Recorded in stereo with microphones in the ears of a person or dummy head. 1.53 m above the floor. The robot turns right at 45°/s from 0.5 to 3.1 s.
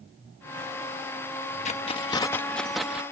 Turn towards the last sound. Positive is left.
turn(degrees=-165)